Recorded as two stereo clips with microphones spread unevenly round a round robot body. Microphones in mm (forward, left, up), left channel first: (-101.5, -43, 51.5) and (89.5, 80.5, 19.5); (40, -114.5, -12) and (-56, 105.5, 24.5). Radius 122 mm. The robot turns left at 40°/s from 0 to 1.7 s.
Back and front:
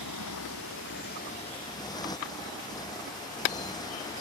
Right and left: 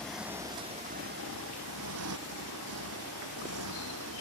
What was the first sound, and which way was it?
A motorcycle, 150° right.